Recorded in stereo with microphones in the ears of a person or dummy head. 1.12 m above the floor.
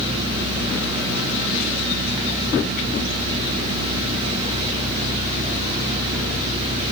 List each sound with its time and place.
Only background noise.